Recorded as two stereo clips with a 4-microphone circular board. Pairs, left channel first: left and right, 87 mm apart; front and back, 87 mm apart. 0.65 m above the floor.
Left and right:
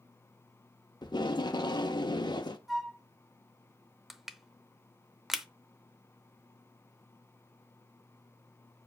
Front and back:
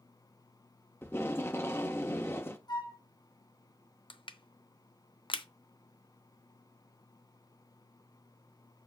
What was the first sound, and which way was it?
Tape being pulled, 60° left.